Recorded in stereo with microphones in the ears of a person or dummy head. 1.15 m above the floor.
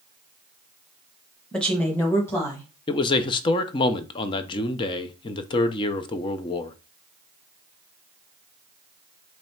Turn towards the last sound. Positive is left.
turn(degrees=20)  # may be behind; listen again after turning